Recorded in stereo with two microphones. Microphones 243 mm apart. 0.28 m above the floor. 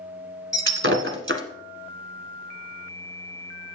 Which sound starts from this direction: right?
Breaking glass, at 0.5 s.